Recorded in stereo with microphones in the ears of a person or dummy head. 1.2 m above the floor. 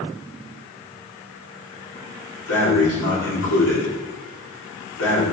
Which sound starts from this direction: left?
Breathing, at 2.5 s.